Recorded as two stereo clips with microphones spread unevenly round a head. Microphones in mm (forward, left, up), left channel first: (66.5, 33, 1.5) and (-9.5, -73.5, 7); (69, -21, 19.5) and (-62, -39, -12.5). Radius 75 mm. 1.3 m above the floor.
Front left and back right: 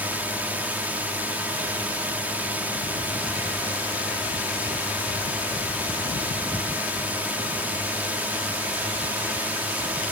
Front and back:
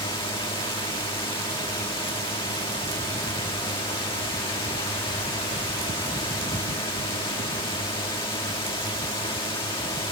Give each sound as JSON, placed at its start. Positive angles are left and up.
{"t": 0.0, "sound": "a drone", "azimuth_deg": -50}